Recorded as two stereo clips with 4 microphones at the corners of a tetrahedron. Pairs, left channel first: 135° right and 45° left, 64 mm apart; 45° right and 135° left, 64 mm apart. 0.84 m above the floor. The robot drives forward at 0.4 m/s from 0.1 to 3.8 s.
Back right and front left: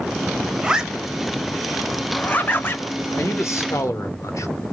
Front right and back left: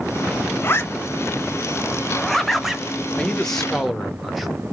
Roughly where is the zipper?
Ahead right.